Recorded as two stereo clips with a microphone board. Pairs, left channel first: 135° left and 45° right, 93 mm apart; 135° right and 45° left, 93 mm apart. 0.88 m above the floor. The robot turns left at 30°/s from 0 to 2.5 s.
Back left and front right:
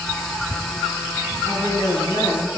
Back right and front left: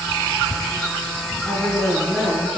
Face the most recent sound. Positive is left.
turn(degrees=135)